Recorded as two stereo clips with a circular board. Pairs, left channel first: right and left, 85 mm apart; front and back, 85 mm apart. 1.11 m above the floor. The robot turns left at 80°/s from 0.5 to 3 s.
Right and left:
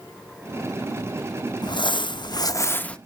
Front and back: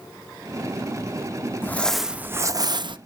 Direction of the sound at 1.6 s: 65° right.